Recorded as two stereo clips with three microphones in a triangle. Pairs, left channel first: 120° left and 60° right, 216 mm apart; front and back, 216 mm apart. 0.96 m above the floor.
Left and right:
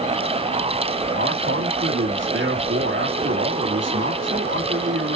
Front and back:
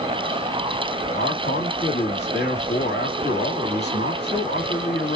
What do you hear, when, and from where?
1.2 s a man speaking: 35° right, 1.7 m